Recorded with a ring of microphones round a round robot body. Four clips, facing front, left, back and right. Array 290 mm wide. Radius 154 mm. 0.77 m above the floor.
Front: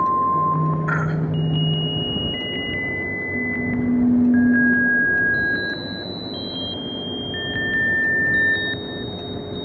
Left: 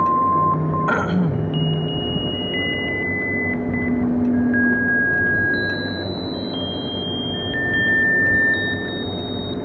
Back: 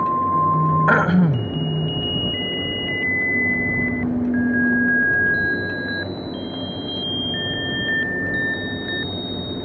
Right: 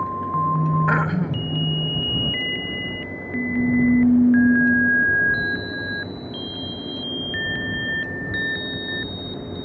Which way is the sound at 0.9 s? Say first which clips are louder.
Left 2 dB, back 7 dB; 170° left.